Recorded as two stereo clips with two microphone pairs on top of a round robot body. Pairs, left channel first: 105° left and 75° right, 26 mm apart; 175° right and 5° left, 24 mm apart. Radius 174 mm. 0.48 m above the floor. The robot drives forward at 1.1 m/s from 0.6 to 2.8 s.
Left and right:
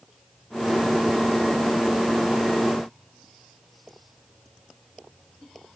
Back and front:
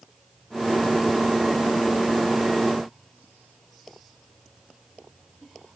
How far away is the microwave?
No microwave in this recording.